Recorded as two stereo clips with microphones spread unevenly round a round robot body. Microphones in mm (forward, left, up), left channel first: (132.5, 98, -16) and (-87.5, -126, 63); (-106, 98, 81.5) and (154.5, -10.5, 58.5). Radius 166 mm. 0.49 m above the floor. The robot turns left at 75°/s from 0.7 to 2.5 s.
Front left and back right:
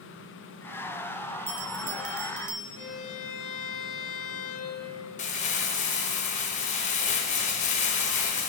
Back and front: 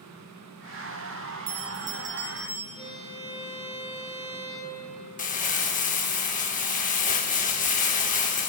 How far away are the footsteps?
I don't hear footsteps.